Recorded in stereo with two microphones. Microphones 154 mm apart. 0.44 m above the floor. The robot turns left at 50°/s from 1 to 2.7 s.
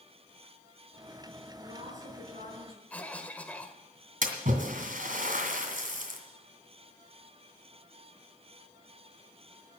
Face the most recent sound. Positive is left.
turn(degrees=-65)  # may be behind; listen again after turning